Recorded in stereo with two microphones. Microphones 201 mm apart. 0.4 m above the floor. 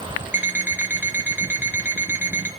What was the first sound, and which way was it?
An alarm clock, 10° right (ahead or behind).